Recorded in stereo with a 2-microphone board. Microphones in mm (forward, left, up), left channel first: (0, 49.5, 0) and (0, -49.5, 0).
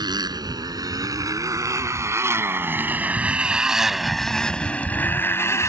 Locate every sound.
0.0 s a motorcycle: 45° right (ahead or behind); by 5.7 s 30° left (ahead or behind)